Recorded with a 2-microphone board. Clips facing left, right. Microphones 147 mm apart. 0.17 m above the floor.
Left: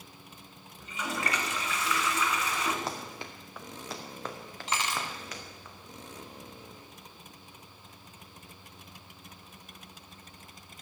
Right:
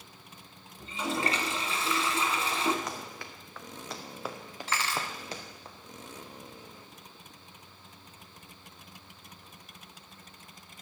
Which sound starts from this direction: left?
Running footsteps, at 2.9 s.